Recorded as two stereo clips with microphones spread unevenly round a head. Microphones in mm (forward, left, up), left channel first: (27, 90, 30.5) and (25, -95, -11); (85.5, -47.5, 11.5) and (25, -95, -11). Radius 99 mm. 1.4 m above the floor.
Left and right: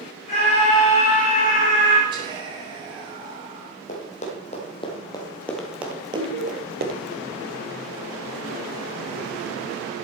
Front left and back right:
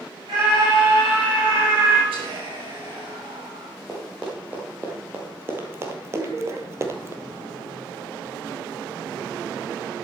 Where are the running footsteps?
125° left, 3 m; by 7.1 s 80° right, 1.8 m.